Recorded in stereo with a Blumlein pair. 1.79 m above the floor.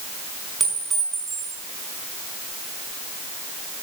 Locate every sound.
0.6 s a clink: 15° right, 6.5 m